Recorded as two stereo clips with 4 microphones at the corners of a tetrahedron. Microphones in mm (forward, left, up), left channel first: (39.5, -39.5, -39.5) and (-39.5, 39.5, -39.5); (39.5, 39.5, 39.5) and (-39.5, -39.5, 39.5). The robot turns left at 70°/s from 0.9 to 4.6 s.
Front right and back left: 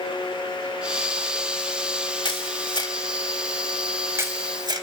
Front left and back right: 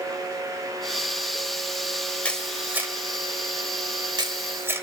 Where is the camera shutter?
30° right, 1.8 m; by 4.8 s 165° left, 1.8 m.